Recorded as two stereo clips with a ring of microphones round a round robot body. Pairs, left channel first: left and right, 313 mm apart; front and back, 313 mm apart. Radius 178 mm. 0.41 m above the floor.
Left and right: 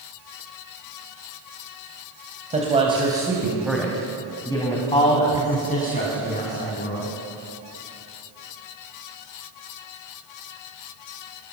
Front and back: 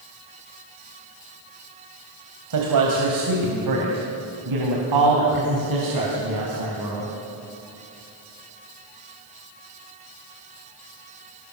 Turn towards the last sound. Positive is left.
turn(degrees=145)